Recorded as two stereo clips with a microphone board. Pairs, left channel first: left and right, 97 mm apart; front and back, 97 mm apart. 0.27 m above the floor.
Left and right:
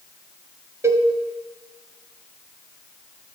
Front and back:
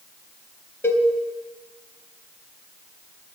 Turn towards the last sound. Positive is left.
turn(degrees=-50)